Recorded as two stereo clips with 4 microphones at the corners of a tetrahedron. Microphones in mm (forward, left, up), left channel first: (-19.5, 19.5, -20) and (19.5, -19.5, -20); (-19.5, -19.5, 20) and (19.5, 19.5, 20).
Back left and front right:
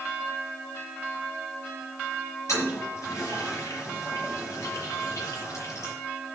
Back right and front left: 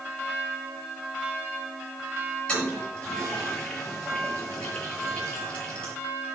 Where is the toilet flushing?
155° left, 8 m.